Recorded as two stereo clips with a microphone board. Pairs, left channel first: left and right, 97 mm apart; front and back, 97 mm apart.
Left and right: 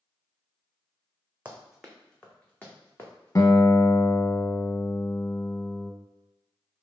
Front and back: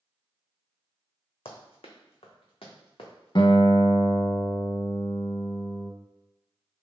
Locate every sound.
1.4 s running footsteps: 15° right, 1.0 m; by 3.5 s 30° left, 1.7 m
3.4 s a guitar: 35° left, 0.5 m